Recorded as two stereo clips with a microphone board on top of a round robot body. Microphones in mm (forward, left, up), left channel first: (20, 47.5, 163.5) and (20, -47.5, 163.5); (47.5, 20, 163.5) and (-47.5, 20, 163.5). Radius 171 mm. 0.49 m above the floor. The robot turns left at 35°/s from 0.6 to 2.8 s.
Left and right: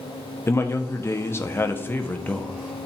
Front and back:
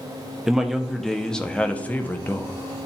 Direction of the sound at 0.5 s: 100° left.